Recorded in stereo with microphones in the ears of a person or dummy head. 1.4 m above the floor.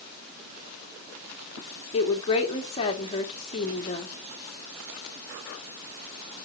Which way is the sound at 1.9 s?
25° left (ahead or behind).